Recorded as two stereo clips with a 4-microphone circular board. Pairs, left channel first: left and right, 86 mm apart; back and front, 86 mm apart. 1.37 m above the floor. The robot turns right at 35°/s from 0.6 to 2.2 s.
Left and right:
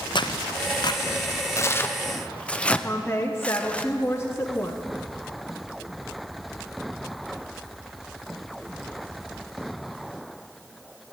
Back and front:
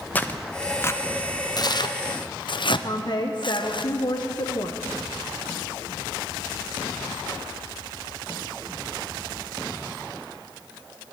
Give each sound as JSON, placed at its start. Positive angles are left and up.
{"t": 0.1, "sound": "tearing paper", "azimuth_deg": 110, "distance_m": 0.6}
{"t": 2.8, "sound": "a woman speaking", "azimuth_deg": 150, "distance_m": 0.9}